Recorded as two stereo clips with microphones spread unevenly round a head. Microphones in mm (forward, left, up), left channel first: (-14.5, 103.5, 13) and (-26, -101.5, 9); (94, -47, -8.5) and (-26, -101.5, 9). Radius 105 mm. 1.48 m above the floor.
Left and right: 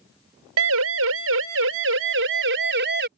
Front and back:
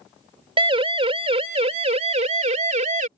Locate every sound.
0.6 s a siren: 110° right; by 3.1 s 130° right